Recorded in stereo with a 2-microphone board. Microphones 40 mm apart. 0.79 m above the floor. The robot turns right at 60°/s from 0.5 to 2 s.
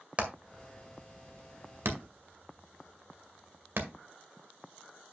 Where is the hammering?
30° right (ahead or behind), 1.9 m; by 3.9 s 60° right (ahead or behind), 1.9 m.